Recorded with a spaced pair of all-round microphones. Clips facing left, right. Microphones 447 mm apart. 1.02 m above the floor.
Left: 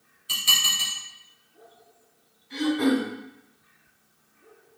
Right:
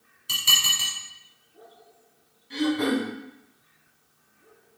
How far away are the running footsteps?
No running footsteps in this recording.